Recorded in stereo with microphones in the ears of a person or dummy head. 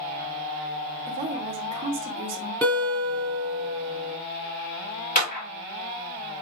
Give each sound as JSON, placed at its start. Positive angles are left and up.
{"t": 1.1, "sound": "a woman speaking", "side_deg": -40, "distance_m": 1.5}
{"t": 2.6, "sound": "a guitar", "side_deg": 15, "distance_m": 2.5}
{"t": 5.2, "sound": "a clap", "side_deg": 50, "distance_m": 2.5}